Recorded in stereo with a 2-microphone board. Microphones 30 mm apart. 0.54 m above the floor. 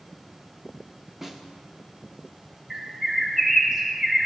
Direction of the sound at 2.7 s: 15° right (ahead or behind).